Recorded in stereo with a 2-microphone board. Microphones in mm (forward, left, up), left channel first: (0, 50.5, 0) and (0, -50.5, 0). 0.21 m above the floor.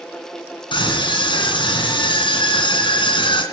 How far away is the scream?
About 2.5 m.